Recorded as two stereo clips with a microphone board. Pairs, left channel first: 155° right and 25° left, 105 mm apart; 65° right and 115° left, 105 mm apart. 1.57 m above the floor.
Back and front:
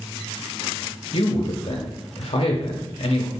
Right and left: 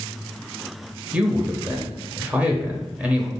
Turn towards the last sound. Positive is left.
turn(degrees=-170)